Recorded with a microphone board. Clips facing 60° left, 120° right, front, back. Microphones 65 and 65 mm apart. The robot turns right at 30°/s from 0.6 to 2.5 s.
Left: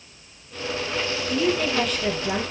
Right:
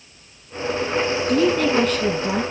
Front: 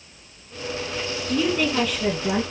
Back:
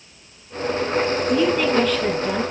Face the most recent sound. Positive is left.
turn(degrees=-65)